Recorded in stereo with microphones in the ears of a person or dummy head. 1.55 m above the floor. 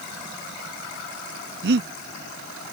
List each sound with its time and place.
1.6 s breathing: 60° right (ahead or behind)